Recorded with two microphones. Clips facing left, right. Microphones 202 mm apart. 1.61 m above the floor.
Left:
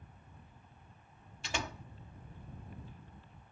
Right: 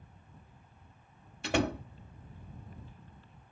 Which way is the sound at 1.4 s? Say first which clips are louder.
Right 12 dB; 60° right (ahead or behind).